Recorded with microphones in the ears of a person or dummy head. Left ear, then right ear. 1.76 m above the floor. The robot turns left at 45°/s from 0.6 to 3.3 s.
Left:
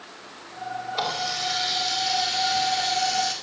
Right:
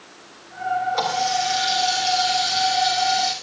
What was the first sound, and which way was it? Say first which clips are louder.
A running tap: right 5 dB; 125° right.